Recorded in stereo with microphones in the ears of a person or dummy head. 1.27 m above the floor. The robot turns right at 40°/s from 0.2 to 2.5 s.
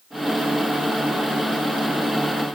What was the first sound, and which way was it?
Only background noise.